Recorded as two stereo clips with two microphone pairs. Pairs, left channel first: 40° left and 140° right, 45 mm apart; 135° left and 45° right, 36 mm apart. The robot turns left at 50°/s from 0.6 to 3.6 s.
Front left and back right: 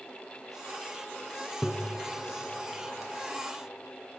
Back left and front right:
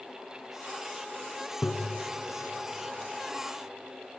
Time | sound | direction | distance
1.6 | tapping | 120° left | 1.1 m